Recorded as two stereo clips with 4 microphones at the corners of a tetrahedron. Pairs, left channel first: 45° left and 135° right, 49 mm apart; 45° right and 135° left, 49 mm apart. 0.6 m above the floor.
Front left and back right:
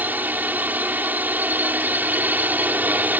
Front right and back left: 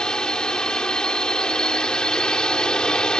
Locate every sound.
0.0 s a drone: 110° right